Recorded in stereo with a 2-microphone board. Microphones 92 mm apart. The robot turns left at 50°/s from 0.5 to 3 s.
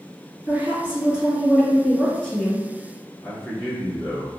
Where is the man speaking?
10° left (ahead or behind), 1.5 m.